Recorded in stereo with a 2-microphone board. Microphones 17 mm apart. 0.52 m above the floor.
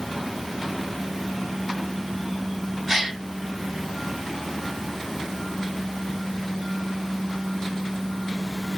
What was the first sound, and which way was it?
A gasp, 20° right (ahead or behind).